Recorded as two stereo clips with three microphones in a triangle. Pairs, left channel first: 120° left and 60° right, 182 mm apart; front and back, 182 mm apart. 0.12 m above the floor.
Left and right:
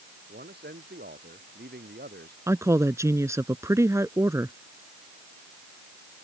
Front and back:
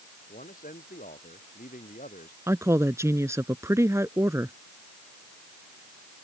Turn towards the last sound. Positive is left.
turn(degrees=-120)